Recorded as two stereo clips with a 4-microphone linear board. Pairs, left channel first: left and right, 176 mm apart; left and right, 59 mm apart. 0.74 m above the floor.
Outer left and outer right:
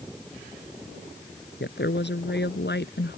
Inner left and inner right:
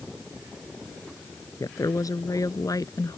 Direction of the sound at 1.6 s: 85° left.